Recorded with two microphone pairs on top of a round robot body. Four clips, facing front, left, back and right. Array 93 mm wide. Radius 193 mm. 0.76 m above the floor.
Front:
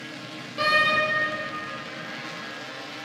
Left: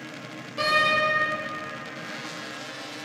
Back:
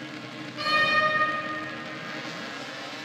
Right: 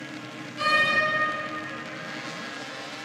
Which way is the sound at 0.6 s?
50° left.